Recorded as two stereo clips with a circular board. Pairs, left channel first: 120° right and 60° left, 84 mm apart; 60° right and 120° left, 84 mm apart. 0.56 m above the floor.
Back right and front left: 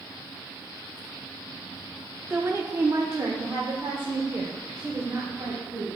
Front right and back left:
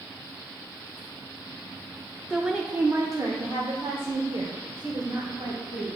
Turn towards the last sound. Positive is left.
turn(degrees=120)